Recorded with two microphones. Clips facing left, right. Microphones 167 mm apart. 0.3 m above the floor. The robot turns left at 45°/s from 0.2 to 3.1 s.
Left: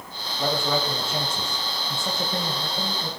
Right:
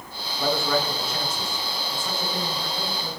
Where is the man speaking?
170° left, 2 m; by 3.1 s 45° left, 2 m.